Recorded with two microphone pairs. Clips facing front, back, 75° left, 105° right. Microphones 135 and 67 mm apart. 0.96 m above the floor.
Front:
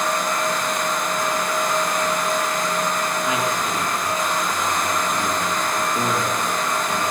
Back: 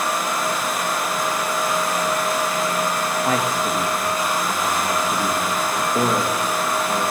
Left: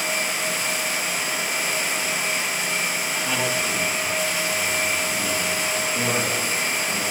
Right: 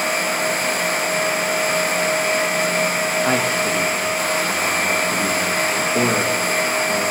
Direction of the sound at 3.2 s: 140° right.